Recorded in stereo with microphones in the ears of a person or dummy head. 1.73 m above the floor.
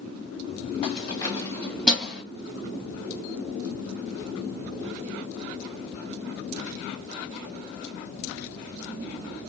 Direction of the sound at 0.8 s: 40° left (ahead or behind).